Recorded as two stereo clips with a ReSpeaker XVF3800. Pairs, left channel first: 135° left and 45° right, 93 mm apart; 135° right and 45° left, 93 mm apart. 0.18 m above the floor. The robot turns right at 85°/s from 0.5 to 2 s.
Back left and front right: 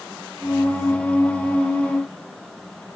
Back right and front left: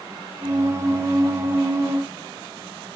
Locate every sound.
Only background noise.